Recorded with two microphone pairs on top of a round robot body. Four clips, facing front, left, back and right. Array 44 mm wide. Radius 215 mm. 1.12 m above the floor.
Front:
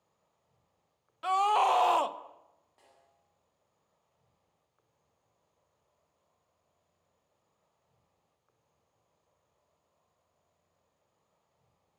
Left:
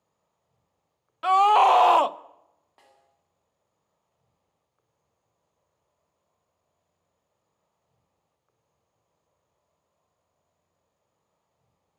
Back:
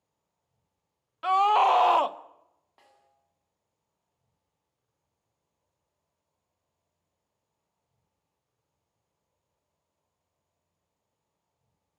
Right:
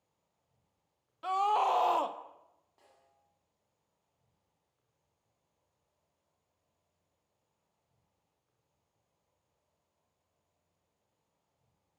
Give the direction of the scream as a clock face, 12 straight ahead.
8 o'clock.